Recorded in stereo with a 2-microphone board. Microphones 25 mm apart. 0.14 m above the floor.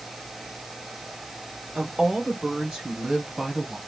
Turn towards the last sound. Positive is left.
turn(degrees=-25)  # may be behind; listen again after turning